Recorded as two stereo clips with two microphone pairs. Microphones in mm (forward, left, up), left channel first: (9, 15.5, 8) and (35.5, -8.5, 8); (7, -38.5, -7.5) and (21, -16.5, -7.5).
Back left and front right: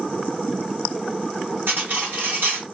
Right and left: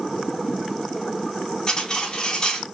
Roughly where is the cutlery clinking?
Ahead right.